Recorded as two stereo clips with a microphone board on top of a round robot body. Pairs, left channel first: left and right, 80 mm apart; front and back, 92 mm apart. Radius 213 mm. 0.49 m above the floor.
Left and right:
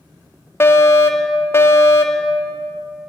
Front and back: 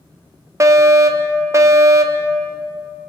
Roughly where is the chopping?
No chopping in this recording.